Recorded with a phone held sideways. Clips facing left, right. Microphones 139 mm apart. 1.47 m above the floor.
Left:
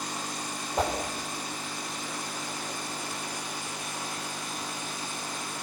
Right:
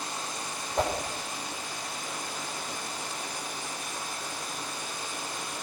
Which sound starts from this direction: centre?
A whoosh, at 0.8 s.